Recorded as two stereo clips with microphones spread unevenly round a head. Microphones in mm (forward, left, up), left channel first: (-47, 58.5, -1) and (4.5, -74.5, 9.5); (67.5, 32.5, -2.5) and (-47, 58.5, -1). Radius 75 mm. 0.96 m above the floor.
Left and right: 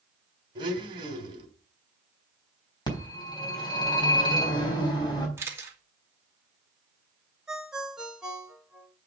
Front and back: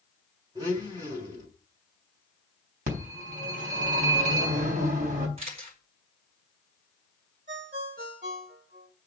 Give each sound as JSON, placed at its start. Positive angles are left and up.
{"t": 0.6, "sound": "a blender", "azimuth_deg": -125, "distance_m": 3.0}
{"t": 2.9, "sound": "a phone ringing", "azimuth_deg": 170, "distance_m": 3.5}
{"t": 5.4, "sound": "a camera shutter", "azimuth_deg": -140, "distance_m": 2.5}
{"t": 7.5, "sound": "a ringtone", "azimuth_deg": -155, "distance_m": 2.0}